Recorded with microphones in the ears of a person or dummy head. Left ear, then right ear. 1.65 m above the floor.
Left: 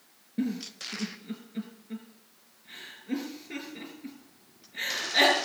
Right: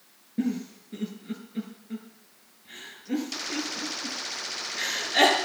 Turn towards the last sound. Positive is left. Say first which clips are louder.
# right 2 dB
turn(degrees=10)  # may be behind; listen again after turning